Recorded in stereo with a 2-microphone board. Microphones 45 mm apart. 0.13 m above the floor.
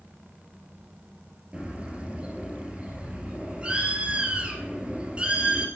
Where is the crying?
No crying in this recording.